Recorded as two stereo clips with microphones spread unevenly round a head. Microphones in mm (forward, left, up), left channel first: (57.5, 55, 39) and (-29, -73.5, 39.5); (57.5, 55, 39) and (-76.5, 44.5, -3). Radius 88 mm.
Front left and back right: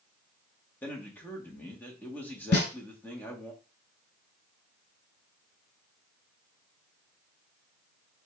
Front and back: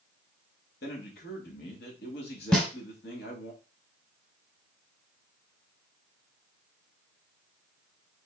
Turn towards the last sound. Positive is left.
turn(degrees=75)